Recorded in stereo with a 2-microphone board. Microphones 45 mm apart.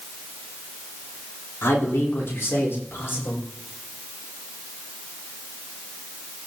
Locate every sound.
1.6 s a man speaking: 65° left (ahead or behind), 4 m; by 3.4 s 55° left (ahead or behind), 6 m